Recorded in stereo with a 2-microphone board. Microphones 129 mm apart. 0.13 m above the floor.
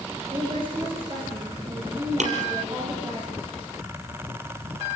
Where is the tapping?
65° right (ahead or behind), 4 m.